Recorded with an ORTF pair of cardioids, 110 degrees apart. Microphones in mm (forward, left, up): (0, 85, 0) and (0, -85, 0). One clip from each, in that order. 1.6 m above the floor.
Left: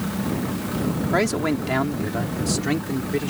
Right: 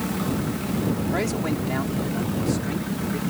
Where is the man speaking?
45° left; by 3.3 s 65° left.